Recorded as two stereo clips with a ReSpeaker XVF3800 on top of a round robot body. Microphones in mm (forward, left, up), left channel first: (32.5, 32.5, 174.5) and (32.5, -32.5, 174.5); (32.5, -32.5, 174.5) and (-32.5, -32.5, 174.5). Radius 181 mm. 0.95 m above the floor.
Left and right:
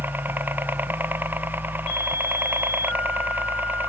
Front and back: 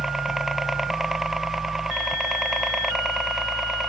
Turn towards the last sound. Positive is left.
turn(degrees=-100)